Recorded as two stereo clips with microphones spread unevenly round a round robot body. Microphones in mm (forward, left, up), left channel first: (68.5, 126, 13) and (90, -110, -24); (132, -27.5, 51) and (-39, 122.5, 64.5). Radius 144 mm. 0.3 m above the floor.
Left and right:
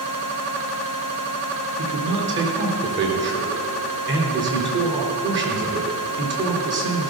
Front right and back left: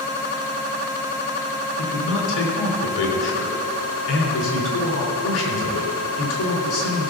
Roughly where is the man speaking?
Ahead right.